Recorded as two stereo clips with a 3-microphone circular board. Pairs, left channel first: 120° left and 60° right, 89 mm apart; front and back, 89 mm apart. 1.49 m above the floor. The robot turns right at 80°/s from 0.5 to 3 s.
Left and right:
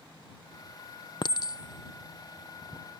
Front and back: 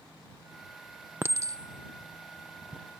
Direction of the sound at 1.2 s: 120° left.